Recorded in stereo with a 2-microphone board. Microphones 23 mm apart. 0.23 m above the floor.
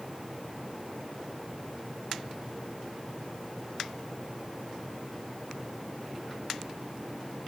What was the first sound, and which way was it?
Only background noise.